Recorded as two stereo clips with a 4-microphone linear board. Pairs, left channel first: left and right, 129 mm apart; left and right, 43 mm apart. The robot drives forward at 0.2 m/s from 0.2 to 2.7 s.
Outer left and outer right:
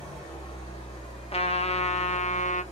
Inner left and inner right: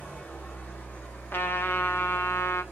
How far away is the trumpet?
About 0.6 m.